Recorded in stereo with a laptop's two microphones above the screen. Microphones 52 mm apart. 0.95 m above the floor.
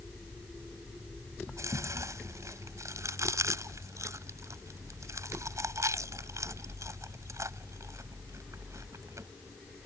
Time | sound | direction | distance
1.5 | chewing | 80° right | ?